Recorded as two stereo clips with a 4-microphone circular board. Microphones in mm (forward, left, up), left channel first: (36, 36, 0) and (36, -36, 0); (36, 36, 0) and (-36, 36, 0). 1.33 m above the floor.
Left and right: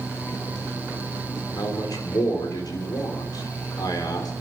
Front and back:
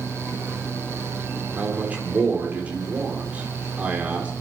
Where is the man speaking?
110° left, 3.5 m.